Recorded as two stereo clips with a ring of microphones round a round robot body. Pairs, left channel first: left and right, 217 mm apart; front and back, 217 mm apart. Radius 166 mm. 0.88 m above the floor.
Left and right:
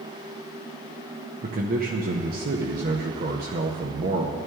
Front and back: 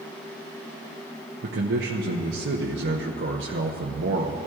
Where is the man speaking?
140° right, 0.7 m.